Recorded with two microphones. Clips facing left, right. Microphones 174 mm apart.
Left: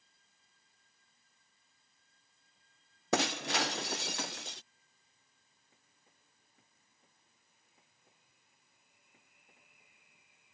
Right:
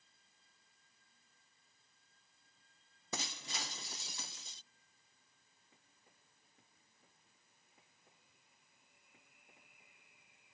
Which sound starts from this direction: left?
Breaking glass, at 3.1 s.